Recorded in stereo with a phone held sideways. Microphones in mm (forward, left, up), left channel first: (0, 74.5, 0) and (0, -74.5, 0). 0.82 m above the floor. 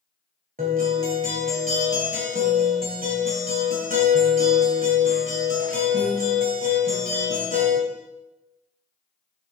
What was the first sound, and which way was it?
A guitar, 70° right (ahead or behind).